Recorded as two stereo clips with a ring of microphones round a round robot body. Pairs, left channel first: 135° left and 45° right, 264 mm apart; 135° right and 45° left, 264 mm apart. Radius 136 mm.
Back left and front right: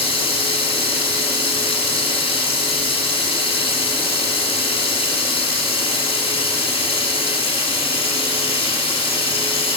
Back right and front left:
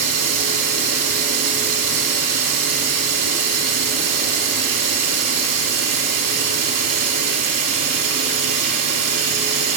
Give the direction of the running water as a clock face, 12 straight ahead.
10 o'clock.